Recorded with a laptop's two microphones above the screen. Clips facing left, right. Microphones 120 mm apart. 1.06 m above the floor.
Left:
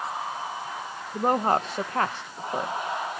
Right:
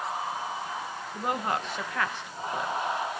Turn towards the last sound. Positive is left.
turn(degrees=35)  # may be behind; listen again after turning